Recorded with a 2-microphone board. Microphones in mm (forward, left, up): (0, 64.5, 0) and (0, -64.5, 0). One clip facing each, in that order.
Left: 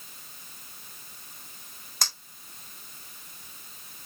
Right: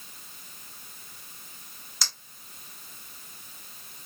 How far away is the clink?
About 1.9 m.